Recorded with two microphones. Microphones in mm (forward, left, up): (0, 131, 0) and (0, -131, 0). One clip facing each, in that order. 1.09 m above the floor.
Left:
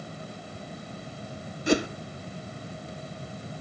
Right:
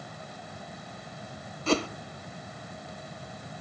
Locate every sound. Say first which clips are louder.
1.7 s a whoosh: left 3 dB; 15° left (ahead or behind), 0.6 m